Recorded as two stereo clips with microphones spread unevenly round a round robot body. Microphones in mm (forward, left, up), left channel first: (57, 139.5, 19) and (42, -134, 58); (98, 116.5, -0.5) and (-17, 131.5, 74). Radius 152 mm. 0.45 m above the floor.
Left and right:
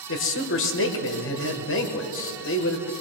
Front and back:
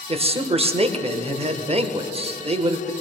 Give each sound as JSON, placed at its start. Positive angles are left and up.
{"t": 0.1, "sound": "a man speaking", "azimuth_deg": 115, "distance_m": 1.6}